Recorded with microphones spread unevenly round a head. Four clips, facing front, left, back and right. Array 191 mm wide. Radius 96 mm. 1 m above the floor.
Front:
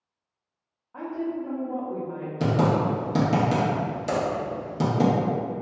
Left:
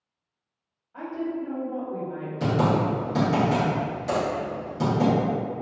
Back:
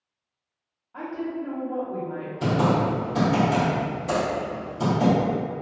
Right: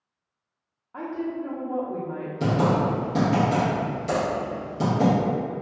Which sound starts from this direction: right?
A woman speaking, at 0.9 s.